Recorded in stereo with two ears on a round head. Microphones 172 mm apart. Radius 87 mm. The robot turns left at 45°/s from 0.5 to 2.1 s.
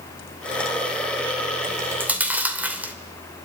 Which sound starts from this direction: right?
Chewing, at 1.7 s.